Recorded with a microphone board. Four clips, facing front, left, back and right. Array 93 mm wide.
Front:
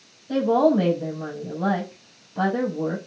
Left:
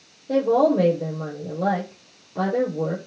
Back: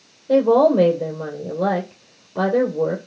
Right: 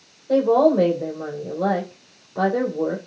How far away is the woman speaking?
About 3 m.